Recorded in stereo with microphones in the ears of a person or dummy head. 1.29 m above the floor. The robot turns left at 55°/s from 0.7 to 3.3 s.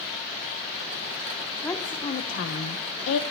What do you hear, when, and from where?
1.6 s a woman speaking: 170° left, 0.6 m; by 3.2 s 85° left, 0.6 m